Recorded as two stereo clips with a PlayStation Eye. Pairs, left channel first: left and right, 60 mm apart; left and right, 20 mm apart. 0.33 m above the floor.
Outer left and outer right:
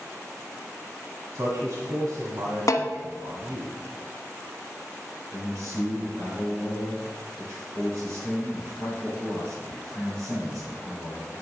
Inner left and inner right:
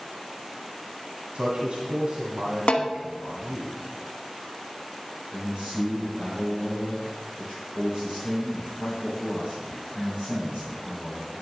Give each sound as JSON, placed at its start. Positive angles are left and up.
{"t": 1.4, "sound": "a man speaking", "side_deg": -65, "distance_m": 1.9}
{"t": 2.7, "sound": "a snare drum", "side_deg": 70, "distance_m": 0.9}
{"t": 5.3, "sound": "a man speaking", "side_deg": -50, "distance_m": 4.5}